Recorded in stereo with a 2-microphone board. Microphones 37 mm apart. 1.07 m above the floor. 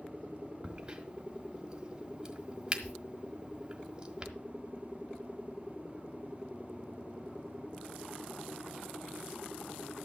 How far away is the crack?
About 1.6 m.